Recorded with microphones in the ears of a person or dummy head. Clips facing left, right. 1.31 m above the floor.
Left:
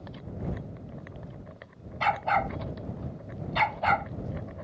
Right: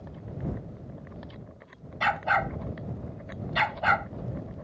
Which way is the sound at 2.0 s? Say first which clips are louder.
Left 1 dB; 15° right (ahead or behind).